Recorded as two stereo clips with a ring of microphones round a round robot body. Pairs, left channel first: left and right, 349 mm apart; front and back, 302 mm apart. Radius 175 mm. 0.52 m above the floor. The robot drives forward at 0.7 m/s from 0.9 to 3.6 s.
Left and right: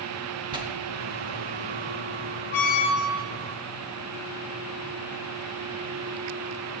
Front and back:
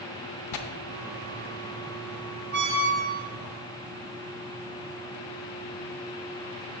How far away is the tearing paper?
About 0.7 m.